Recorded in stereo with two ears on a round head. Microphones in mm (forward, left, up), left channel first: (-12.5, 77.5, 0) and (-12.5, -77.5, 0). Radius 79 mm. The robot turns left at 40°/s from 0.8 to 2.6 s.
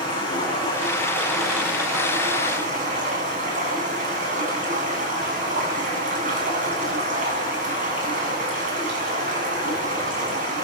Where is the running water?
25° left, 8.5 m; by 10.6 s 45° right, 8.5 m.